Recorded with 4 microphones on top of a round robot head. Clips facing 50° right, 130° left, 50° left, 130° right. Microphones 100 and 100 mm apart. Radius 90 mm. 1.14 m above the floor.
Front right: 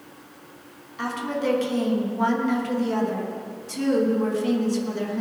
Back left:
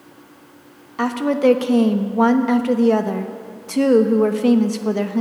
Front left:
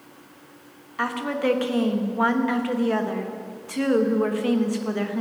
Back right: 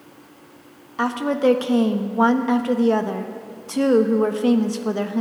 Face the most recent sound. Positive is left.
turn(degrees=165)